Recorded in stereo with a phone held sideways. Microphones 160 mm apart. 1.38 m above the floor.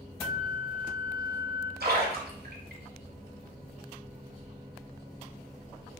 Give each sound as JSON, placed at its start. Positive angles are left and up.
{"t": 0.2, "sound": "a flute", "side_deg": 60, "distance_m": 2.5}
{"t": 1.8, "sound": "a splash", "side_deg": -75, "distance_m": 1.5}